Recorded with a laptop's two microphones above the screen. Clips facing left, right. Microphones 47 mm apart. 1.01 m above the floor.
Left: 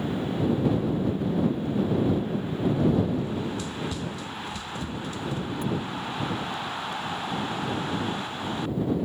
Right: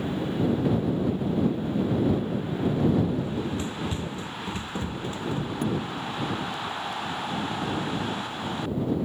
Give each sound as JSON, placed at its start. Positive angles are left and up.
{"t": 3.2, "sound": "running footsteps", "side_deg": -30}
{"t": 5.6, "sound": "a thud", "side_deg": -50}